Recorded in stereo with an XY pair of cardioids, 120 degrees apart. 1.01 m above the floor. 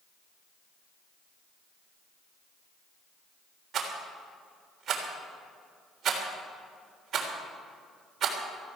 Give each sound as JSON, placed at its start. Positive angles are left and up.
{"t": 3.7, "sound": "a rattle", "azimuth_deg": -50, "distance_m": 3.5}